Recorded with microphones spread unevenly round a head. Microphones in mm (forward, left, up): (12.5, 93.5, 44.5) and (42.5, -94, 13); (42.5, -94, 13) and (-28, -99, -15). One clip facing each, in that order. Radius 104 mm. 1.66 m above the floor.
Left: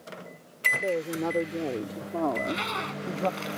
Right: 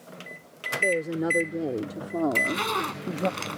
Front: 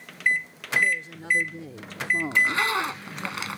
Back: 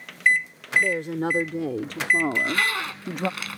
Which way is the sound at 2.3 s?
55° right.